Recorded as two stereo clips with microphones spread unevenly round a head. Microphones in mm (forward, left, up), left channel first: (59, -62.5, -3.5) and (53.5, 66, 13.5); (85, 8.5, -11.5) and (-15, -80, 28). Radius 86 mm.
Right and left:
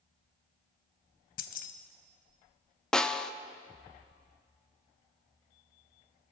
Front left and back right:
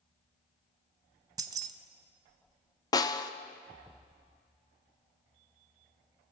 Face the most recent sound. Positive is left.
turn(degrees=-5)